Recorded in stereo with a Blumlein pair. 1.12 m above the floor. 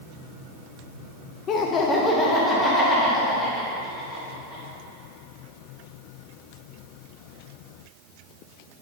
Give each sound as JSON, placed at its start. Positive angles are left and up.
{"t": 1.5, "sound": "laughter", "azimuth_deg": 30, "distance_m": 0.6}